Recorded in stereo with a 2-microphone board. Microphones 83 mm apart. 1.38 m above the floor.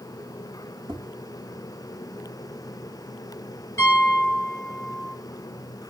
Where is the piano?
35° left (ahead or behind), 4.5 m.